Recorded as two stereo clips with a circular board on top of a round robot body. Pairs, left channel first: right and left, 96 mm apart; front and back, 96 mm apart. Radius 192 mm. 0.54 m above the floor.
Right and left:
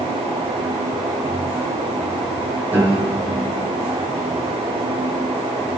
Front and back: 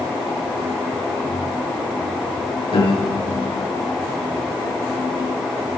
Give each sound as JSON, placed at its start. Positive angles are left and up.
{"t": 2.7, "sound": "a piano", "azimuth_deg": 20, "distance_m": 6.5}